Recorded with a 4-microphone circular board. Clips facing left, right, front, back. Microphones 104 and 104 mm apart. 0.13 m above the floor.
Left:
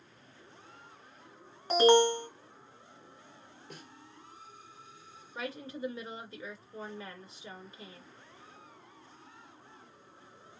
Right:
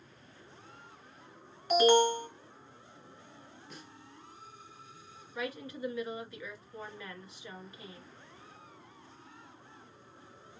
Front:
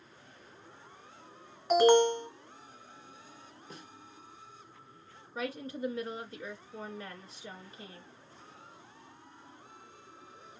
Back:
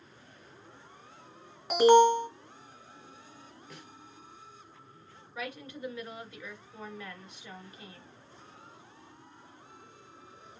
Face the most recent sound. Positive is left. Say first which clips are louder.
# right 1 dB, front 4 dB
turn(degrees=40)